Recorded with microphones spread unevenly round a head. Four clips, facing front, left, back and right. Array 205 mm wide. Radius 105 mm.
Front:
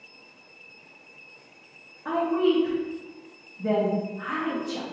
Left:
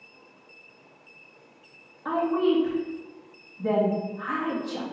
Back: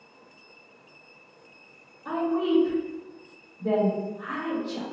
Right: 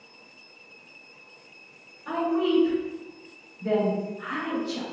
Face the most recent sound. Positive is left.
turn(degrees=55)